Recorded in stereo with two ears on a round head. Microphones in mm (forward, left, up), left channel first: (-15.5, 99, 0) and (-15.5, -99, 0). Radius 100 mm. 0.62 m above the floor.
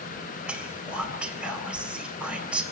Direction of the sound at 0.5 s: 5° right (ahead or behind).